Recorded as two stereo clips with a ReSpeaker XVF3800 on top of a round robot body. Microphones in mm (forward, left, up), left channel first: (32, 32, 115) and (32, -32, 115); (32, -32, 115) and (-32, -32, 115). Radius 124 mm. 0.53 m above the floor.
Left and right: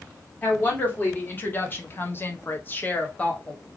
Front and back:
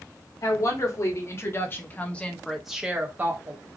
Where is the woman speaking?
30° left, 2.5 m; by 3.6 s 160° left, 1.4 m.